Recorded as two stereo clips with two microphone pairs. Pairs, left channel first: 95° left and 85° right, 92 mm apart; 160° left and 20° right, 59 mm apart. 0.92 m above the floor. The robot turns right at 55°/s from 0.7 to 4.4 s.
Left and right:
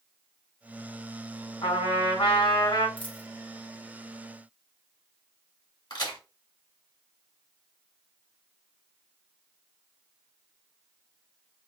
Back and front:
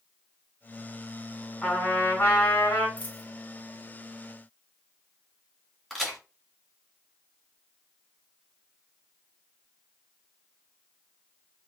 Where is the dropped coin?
95° left, 0.8 m; by 3.3 s 115° left, 0.8 m.